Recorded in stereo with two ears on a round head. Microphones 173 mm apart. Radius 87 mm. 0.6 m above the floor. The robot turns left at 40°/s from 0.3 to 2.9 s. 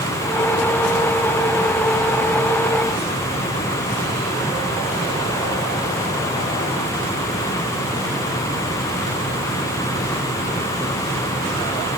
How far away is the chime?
I don't hear a chime.